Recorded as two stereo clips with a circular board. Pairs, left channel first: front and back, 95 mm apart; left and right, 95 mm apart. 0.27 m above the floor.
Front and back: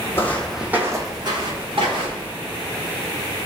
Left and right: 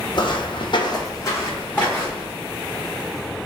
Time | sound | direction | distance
0.1 | footsteps | 60° left | 0.5 m